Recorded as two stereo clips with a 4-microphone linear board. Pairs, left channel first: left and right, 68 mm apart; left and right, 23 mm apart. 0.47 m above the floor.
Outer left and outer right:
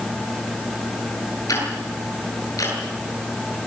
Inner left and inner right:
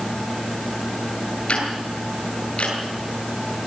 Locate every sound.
1.5 s ticking: 55° left (ahead or behind), 9 m